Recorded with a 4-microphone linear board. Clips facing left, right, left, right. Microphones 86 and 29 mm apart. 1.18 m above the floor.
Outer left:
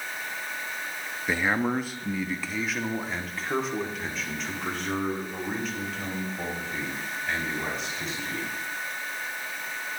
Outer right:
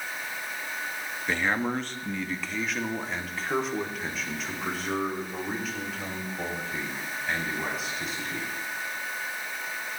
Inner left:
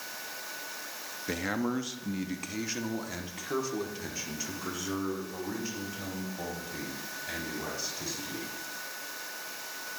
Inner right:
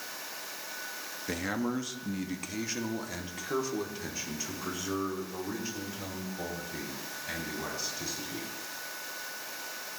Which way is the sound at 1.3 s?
10° left (ahead or behind).